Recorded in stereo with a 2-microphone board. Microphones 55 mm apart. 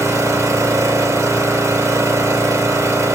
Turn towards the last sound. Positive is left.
turn(degrees=-65)  # may be behind; listen again after turning